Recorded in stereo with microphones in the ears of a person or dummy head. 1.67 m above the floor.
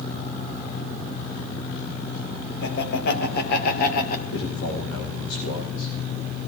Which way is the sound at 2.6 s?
60° left (ahead or behind).